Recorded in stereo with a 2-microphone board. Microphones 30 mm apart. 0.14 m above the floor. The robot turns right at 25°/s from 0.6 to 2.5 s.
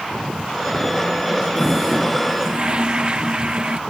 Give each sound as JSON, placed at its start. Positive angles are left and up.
{"t": 1.6, "sound": "a toilet flushing", "side_deg": -15}